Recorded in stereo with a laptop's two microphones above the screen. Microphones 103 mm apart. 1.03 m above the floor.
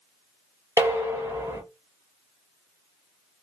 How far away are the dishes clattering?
About 0.7 m.